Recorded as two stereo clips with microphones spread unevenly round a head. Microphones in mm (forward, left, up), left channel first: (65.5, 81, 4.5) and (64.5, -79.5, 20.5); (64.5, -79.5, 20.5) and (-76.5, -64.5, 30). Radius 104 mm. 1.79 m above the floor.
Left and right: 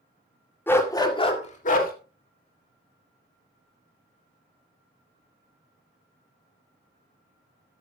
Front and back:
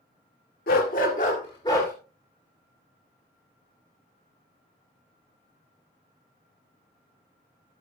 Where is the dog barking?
10° left, 2 m; by 1.9 s 75° left, 2.0 m.